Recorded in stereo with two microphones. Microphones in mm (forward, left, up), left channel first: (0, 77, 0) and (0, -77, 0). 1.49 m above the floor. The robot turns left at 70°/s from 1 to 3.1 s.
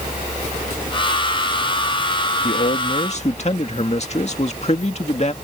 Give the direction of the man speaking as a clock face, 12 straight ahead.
9 o'clock.